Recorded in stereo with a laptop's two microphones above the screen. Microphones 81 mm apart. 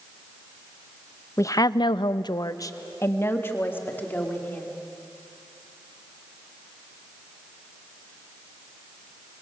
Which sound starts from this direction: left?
A woman speaking, at 1.4 s.